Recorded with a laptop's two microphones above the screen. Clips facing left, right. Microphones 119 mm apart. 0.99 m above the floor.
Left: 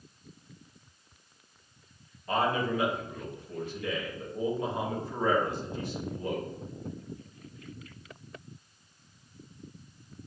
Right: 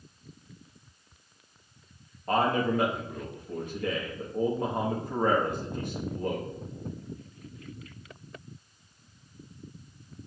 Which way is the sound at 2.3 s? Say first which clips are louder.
Right 3 dB; 50° right (ahead or behind).